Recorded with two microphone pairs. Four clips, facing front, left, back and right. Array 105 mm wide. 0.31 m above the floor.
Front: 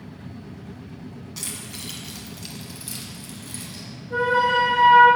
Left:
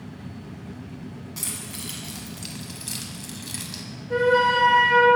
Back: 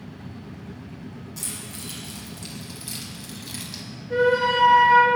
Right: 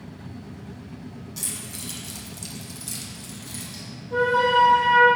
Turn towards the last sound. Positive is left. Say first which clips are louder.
# even, even
turn(degrees=115)